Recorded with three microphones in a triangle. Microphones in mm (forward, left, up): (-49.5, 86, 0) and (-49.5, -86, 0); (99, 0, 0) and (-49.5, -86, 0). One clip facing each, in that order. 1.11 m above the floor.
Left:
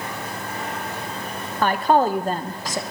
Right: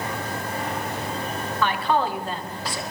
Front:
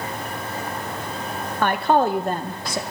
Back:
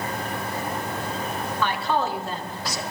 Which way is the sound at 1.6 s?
55° left.